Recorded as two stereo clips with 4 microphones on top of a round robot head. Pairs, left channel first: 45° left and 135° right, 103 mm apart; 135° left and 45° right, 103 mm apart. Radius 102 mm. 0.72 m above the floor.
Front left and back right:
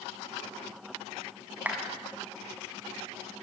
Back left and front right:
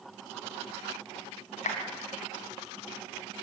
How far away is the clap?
About 5 m.